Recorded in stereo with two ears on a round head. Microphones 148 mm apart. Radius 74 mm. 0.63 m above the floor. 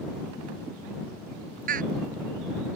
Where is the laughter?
50° right (ahead or behind).